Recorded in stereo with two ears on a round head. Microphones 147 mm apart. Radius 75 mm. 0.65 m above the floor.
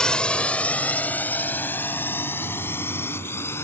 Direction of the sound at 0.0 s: 5° left (ahead or behind).